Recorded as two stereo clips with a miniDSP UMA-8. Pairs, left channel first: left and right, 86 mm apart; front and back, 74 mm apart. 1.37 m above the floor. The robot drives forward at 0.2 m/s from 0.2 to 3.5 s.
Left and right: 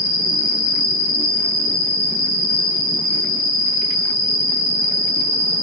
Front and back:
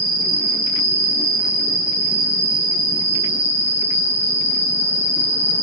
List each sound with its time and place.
0.0 s an insect: 145° left, 0.8 m; by 5.6 s 160° left, 1.4 m